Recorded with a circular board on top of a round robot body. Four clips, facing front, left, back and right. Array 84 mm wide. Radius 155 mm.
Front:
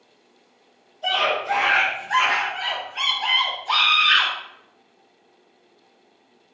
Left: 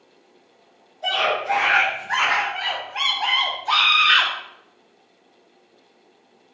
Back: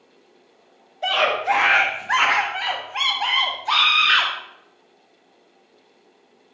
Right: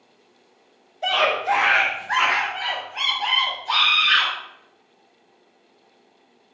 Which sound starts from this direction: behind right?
A scream, at 1.0 s.